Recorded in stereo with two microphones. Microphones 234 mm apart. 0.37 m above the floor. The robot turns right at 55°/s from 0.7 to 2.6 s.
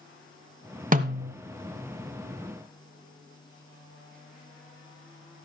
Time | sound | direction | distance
0.9 | a snare drum | 35° right (ahead or behind) | 1.1 m